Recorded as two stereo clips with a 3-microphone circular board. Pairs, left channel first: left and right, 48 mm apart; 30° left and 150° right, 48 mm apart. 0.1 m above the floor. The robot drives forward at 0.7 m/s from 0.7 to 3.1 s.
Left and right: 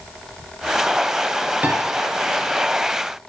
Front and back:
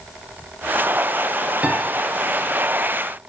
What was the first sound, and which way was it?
A piano, 115° right.